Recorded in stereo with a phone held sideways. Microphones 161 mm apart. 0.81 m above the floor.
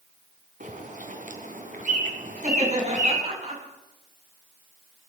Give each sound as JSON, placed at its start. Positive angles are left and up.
{"t": 0.6, "sound": "a bird", "side_deg": -55, "distance_m": 3.0}
{"t": 2.4, "sound": "laughter", "side_deg": -45, "distance_m": 7.5}